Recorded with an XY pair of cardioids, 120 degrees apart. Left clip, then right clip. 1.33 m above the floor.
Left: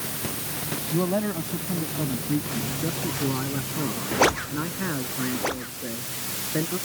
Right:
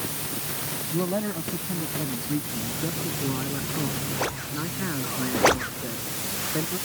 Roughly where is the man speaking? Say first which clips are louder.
Left 2 dB; ahead.